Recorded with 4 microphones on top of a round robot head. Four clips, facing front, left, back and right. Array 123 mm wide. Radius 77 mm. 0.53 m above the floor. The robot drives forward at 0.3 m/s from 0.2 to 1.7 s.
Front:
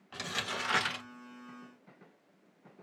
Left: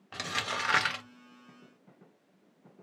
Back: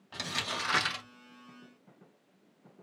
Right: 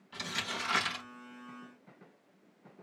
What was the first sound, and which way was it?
Crumpling, 100° left.